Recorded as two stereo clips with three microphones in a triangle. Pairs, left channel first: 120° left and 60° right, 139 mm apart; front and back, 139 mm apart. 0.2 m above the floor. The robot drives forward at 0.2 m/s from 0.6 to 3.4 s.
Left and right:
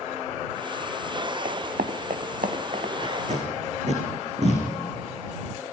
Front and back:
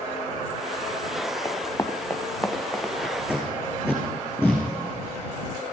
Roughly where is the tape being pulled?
Right.